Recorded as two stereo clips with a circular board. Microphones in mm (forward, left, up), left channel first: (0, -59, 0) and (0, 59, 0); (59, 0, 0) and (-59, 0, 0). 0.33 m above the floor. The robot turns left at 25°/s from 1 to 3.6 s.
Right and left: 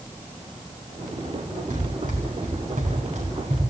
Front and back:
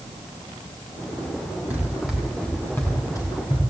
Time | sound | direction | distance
1.7 | running footsteps | 105° left | 8.5 m